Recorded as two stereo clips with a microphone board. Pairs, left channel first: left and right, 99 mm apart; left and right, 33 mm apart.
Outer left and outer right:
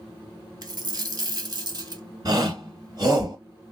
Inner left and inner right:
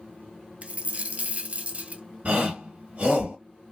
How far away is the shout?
About 2 m.